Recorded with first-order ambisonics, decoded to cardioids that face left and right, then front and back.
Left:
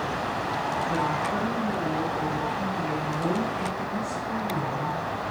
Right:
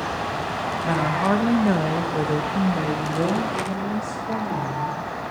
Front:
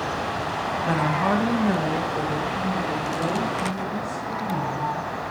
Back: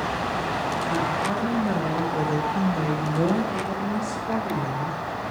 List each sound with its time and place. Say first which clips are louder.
0.8 s a woman speaking: right 4 dB, front 6 dB; 50° right, 1.4 m; by 5.3 s 160° right, 3 m